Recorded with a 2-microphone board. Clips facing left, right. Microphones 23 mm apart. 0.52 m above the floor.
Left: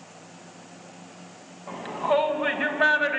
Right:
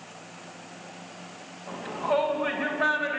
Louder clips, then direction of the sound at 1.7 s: Left 3 dB; 25° left (ahead or behind).